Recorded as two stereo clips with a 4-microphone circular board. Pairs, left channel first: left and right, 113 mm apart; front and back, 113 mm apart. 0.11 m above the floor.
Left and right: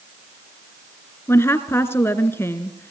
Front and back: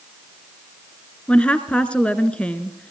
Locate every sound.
1.3 s a woman speaking: 65° left, 1.1 m